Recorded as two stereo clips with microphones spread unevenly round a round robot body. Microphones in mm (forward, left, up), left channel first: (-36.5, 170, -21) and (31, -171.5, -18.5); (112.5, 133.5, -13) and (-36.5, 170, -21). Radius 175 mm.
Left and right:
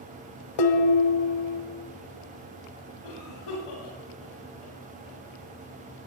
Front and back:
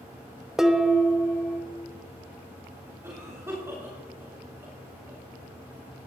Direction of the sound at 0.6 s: 80° left.